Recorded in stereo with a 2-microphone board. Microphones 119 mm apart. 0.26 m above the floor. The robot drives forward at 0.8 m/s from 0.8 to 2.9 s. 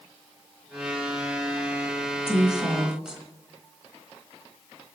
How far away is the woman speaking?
About 1.5 m.